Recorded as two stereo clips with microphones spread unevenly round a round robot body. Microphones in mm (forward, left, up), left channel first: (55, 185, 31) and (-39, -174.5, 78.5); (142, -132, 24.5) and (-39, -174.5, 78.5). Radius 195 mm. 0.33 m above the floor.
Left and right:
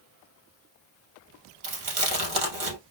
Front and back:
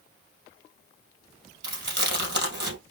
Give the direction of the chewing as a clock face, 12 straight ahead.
5 o'clock.